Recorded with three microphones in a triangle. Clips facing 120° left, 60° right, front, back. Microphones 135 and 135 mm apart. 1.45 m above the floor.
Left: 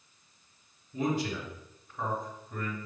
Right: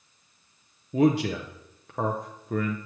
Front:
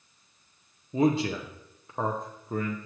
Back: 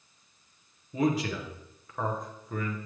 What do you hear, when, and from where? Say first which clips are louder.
0.9 s a man speaking: right 9 dB, front 3 dB; 60° right, 0.6 m